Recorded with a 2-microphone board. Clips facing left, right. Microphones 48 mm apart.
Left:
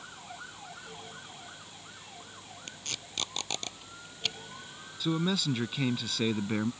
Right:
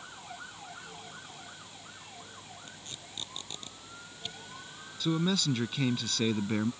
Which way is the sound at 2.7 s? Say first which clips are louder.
Left 4 dB; 70° left (ahead or behind).